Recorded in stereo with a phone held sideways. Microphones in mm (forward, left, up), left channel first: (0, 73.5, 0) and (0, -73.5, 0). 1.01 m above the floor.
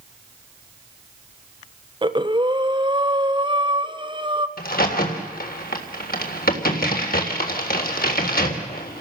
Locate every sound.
2.0 s breathing: 30° right (ahead or behind), 1.3 m
4.6 s a crack: 85° left, 3 m